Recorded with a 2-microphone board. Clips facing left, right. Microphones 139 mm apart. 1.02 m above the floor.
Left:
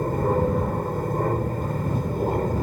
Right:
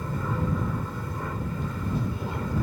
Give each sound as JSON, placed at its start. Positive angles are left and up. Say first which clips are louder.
{"t": 0.0, "sound": "an aircraft", "louder": "left 8 dB", "side_deg": 50}